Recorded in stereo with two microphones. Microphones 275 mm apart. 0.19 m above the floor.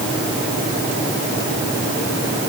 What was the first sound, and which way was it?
Only background noise.